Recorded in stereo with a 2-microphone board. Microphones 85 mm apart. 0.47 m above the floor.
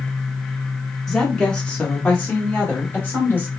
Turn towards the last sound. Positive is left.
turn(degrees=25)  # may be behind; listen again after turning